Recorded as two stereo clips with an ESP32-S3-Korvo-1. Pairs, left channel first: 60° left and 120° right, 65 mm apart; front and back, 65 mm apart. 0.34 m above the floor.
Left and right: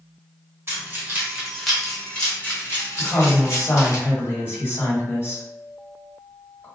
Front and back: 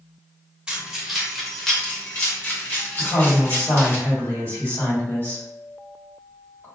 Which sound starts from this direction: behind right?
Keys jangling, at 0.7 s.